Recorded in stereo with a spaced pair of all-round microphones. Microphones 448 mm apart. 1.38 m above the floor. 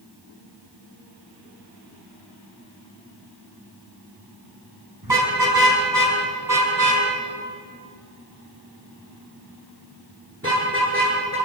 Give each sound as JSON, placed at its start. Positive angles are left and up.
{"t": 5.0, "sound": "a car horn", "side_deg": -55, "distance_m": 6.0}